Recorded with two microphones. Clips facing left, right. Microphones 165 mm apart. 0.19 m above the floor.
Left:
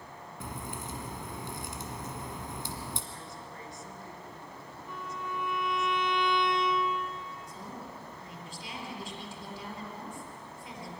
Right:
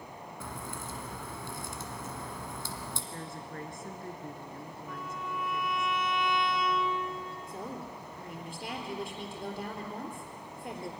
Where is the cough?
No cough in this recording.